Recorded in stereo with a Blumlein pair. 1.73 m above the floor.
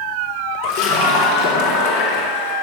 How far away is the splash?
About 1.7 m.